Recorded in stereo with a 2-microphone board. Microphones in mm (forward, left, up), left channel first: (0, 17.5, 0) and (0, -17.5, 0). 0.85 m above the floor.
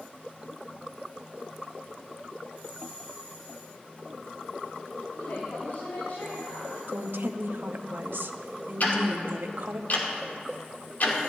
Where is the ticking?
55° left (ahead or behind), 2.5 m.